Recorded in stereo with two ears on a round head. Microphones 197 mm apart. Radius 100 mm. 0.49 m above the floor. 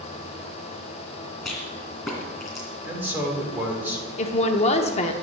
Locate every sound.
1.4 s a rattle: centre (ahead or behind), 2.5 m
2.8 s a man speaking: 10° right (ahead or behind), 1.5 m
4.2 s a woman speaking: 30° left (ahead or behind), 0.7 m